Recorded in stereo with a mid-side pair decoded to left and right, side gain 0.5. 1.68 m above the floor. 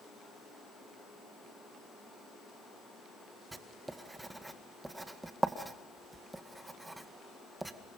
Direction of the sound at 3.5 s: 15° right.